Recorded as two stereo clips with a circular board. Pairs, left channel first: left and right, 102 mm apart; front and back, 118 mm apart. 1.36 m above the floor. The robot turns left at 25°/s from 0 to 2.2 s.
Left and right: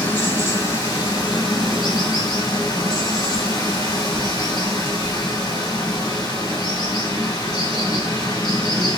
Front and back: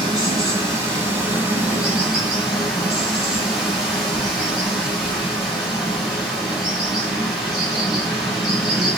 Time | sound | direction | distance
0.0 | running water | 150° left | 1.6 m